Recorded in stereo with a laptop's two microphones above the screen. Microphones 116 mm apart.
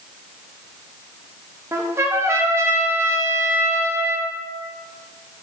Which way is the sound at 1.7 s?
25° right (ahead or behind).